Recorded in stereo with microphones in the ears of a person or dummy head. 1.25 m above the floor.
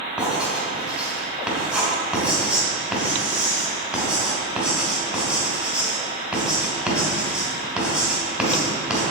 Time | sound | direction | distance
0.2 | writing | 5° right (ahead or behind) | 2.5 m